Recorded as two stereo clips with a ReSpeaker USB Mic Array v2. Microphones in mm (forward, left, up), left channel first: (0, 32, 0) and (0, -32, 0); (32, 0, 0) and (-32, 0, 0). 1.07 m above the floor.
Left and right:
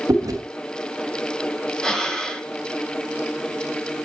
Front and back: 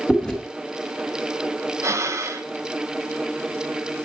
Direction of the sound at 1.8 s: 165° left.